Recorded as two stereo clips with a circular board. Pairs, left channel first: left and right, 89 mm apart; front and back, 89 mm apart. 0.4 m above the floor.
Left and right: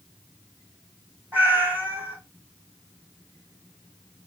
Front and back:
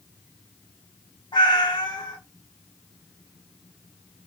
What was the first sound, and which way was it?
A cat meowing, 20° right.